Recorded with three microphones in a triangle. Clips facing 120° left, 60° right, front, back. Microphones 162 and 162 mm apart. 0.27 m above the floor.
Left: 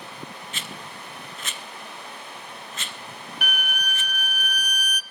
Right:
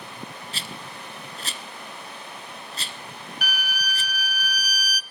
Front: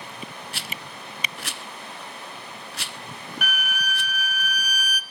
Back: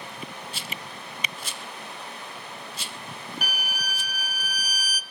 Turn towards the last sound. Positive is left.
turn(degrees=130)